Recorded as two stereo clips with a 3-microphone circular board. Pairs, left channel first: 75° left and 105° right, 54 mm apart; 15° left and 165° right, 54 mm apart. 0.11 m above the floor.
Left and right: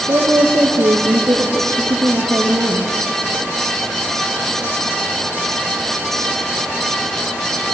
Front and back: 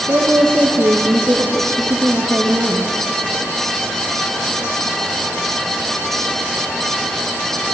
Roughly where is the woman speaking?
Behind right.